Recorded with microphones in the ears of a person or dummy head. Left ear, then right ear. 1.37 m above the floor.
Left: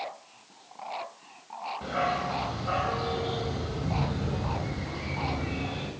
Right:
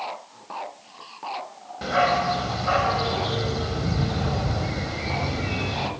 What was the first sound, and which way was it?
A dog barking, 30° right (ahead or behind).